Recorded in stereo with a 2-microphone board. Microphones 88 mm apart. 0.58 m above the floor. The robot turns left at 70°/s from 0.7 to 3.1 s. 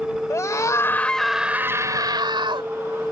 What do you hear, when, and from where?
0.3 s a scream: 40° left; by 2.7 s 100° right